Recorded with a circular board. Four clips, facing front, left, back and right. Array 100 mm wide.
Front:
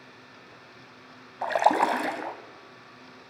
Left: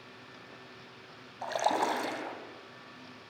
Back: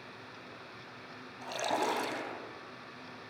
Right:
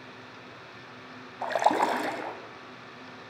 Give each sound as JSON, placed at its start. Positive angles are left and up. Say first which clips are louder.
{"t": 1.4, "sound": "a splash", "louder": "right 5 dB, front 11 dB", "azimuth_deg": -25, "distance_m": 3.5}